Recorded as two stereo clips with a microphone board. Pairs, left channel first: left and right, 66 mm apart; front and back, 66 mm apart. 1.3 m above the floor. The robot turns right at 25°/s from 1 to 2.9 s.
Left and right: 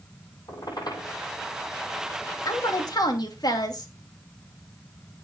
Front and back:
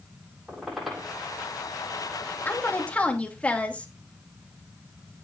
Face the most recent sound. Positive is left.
turn(degrees=70)